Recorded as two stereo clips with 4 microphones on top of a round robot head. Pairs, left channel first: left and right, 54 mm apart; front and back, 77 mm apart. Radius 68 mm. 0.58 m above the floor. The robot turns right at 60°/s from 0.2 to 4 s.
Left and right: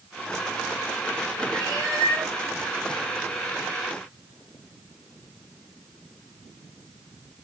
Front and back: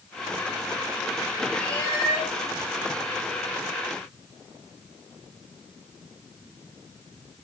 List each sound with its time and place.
1.5 s a cat meowing: 80° right, 4 m; by 2.3 s 35° right, 4 m